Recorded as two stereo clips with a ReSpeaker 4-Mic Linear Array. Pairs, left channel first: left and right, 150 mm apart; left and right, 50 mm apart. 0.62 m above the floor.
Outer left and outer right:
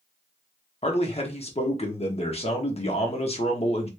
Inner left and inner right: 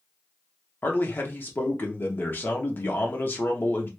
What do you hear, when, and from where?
0.8 s a man speaking: 45° left (ahead or behind), 1.0 m